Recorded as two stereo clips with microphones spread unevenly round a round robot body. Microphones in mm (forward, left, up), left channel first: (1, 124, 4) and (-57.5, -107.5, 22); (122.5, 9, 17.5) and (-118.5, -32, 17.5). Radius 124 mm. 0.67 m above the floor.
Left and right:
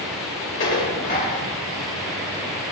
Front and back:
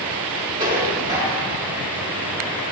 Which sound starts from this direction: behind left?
Dishes clattering, at 0.6 s.